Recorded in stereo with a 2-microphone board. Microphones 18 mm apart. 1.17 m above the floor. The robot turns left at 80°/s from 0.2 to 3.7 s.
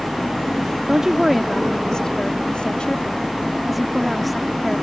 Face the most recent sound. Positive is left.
turn(degrees=0)